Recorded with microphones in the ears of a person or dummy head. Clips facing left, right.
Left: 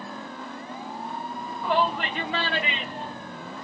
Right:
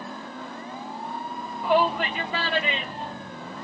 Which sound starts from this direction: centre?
A shout, at 1.6 s.